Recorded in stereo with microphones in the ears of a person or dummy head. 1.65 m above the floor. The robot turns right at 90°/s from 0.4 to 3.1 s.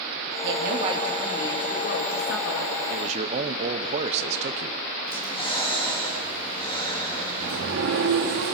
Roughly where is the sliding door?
Right.